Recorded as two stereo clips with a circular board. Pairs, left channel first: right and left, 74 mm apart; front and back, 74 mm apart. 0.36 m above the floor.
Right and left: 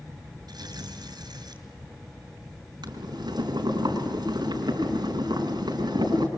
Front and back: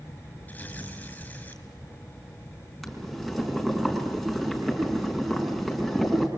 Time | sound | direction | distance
0.5 | tearing paper | 70° left | 4.5 m
2.8 | boiling | 95° left | 4.5 m